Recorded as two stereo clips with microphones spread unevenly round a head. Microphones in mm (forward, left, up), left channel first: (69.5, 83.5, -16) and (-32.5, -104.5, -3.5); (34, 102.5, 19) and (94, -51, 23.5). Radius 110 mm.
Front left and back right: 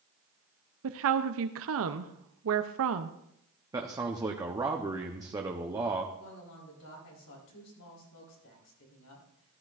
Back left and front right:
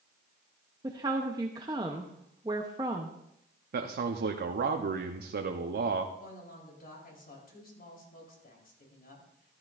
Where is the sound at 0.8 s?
140° right, 0.6 m.